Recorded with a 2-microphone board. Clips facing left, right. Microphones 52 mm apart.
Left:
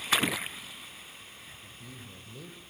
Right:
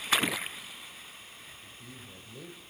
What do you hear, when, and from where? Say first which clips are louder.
1.6 s a man speaking: left 1 dB; 10° right (ahead or behind), 1.6 m